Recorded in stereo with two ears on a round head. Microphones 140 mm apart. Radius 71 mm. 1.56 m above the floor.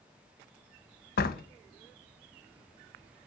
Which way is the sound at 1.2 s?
65° left (ahead or behind).